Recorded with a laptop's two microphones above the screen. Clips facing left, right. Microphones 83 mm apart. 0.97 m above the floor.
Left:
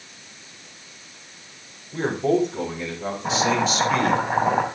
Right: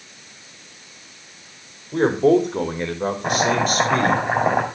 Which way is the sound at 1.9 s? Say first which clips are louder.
Right 6 dB; 75° right (ahead or behind).